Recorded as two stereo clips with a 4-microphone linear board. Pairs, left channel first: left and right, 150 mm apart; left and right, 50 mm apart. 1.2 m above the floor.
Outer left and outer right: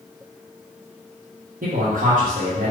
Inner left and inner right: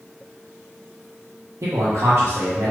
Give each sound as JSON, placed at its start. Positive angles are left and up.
{"t": 1.6, "sound": "a man speaking", "side_deg": -70, "distance_m": 1.0}